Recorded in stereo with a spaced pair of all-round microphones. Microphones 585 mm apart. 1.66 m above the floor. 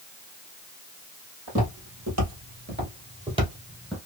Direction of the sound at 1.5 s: 30° right (ahead or behind).